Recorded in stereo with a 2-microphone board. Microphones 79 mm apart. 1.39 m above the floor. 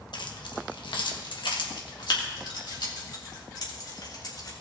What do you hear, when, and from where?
0.1 s keys jangling: 70° left (ahead or behind), 1.1 m; by 4.5 s 55° left (ahead or behind), 3.5 m